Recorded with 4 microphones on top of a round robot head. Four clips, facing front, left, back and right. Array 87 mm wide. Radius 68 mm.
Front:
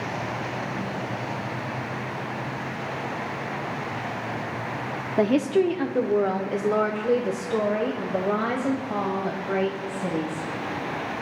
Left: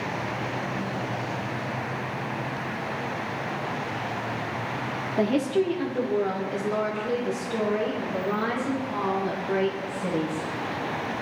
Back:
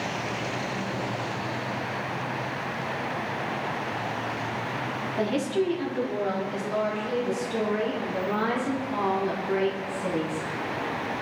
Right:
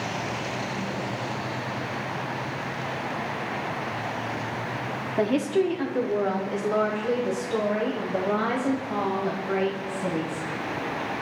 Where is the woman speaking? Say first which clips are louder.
Even, front 6 dB; 5° right, 1.1 m; by 10.5 s 35° right, 3.5 m.